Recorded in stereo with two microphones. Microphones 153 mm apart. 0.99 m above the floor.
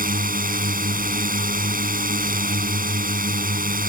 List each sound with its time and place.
0.0 s a drone: 65° right (ahead or behind)